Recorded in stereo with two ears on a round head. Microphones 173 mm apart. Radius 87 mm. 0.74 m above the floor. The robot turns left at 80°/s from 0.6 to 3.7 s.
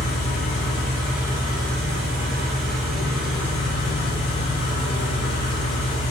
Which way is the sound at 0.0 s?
40° left.